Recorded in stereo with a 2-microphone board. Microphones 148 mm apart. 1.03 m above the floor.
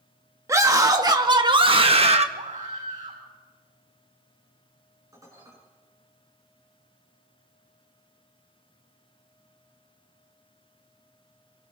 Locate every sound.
0.5 s a scream: 20° right (ahead or behind), 2 m; by 2.2 s 40° right (ahead or behind), 1.6 m
2.4 s a scream: 55° right (ahead or behind), 6.5 m
5.1 s dishes clattering: 20° right (ahead or behind), 8.5 m